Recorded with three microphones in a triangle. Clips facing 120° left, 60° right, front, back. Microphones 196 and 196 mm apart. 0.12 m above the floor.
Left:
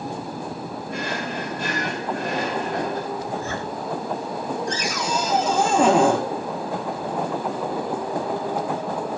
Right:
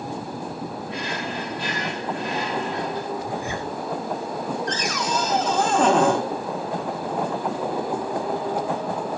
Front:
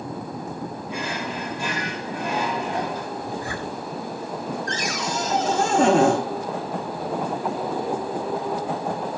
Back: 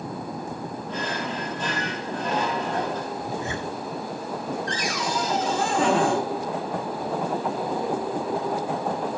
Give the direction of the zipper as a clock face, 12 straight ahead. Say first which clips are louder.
Even, even; 4 o'clock.